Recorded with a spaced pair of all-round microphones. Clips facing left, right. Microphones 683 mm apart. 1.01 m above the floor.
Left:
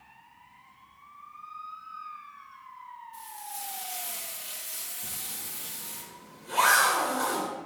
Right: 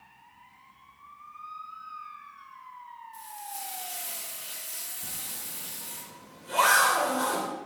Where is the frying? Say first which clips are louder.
Right 1 dB; 50° left (ahead or behind), 2.5 m.